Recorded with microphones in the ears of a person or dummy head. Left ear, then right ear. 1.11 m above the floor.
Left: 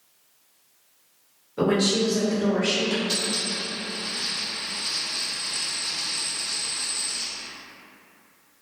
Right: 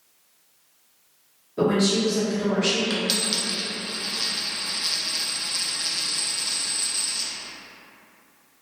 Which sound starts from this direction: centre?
A woman speaking, at 1.6 s.